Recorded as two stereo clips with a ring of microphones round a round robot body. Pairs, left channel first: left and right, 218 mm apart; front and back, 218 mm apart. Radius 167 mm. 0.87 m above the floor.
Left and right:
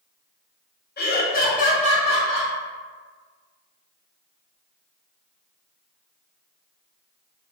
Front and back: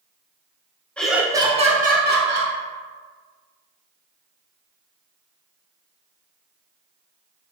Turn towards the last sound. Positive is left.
turn(degrees=155)